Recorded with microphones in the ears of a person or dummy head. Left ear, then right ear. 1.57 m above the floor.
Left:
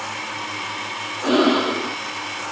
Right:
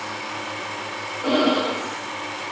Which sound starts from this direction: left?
Breathing, at 1.2 s.